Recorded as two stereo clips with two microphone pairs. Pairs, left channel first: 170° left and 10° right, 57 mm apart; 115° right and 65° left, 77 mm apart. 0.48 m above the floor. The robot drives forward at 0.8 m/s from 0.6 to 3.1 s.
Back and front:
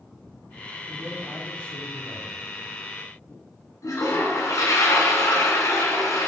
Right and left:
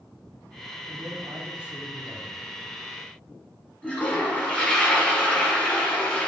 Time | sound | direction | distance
0.9 | a man speaking | 65° left | 1.4 m
3.8 | a toilet flushing | 175° left | 2 m